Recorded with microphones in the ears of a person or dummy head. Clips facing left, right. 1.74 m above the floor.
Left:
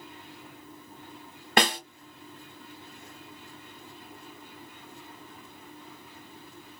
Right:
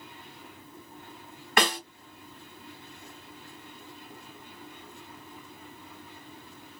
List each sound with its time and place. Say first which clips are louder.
1.6 s a snare drum: left 1 dB; 30° left (ahead or behind), 1.4 m